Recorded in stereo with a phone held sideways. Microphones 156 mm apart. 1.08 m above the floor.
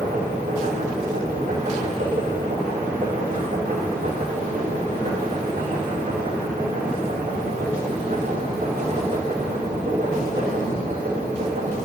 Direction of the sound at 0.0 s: 75° right (ahead or behind).